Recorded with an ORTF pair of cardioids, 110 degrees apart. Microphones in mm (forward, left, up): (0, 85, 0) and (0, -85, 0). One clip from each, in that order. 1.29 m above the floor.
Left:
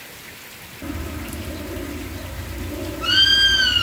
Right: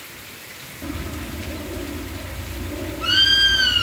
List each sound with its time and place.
0.8 s a bird: 5° left